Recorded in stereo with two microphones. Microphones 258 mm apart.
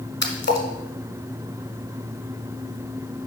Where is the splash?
45° left (ahead or behind), 1.2 m.